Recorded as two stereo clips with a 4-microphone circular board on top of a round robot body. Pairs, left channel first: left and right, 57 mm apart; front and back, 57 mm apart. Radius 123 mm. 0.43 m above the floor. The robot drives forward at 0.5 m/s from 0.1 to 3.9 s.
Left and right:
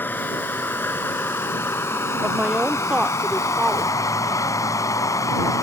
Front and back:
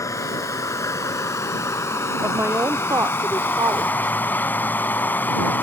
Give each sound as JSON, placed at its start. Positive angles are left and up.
{"t": 0.0, "sound": "running water", "azimuth_deg": 30}
{"t": 2.2, "sound": "a woman speaking", "azimuth_deg": -150}